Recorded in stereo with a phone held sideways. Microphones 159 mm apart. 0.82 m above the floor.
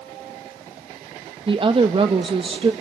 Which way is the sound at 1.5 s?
35° right (ahead or behind).